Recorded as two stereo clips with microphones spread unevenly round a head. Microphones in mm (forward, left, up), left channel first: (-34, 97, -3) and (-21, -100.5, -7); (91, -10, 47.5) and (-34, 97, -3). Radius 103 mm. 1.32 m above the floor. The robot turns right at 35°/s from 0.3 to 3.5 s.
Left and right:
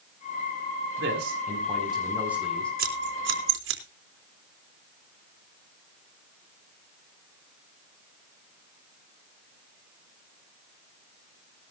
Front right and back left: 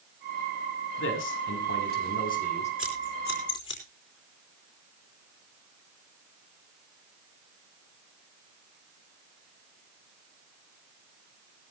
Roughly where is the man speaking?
Ahead right.